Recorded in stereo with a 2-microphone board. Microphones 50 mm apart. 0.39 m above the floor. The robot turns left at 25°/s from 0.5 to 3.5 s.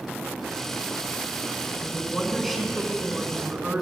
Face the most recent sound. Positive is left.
turn(degrees=-30)